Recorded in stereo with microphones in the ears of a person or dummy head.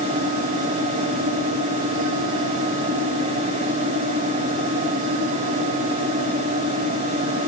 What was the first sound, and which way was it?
A fan, 30° right (ahead or behind).